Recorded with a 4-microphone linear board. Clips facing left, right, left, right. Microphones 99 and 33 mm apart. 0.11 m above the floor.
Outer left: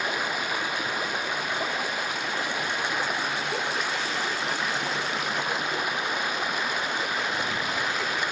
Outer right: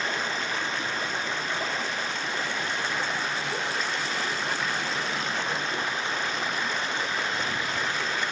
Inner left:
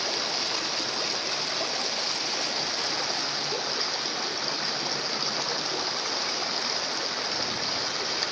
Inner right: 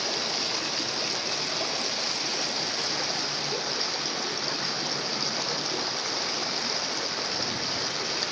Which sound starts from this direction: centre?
Running water, at 0.0 s.